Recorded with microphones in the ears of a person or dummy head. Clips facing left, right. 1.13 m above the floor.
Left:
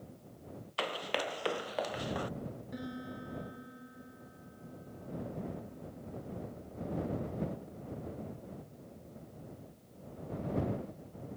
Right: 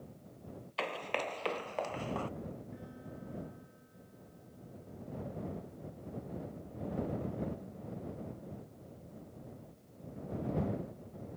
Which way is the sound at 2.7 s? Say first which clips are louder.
Left 6 dB; 85° left.